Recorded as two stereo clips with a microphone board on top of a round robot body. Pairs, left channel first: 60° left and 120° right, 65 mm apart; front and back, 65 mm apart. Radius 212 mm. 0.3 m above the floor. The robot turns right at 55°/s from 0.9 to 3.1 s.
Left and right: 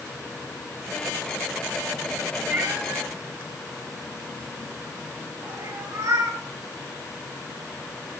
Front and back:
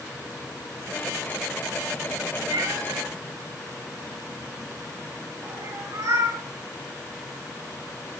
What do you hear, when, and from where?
2.5 s a cat meowing: 175° left, 4 m; by 6.4 s 150° right, 4 m